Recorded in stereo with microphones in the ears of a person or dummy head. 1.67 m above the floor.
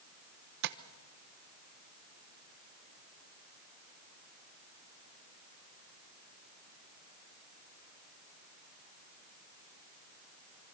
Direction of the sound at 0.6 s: 60° right (ahead or behind).